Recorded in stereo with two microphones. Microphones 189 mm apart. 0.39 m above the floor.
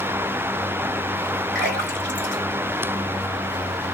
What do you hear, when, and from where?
1.6 s a splash: 65° right (ahead or behind), 2 m